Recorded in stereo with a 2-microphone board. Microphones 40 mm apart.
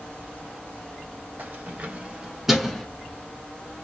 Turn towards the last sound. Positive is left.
turn(degrees=15)  # may be behind; listen again after turning